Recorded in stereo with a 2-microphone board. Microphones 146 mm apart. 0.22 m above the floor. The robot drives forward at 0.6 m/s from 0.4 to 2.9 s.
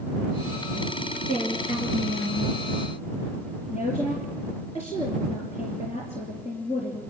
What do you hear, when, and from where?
1.2 s a woman speaking: 55° left (ahead or behind), 3.5 m; by 7.0 s 45° left (ahead or behind), 4 m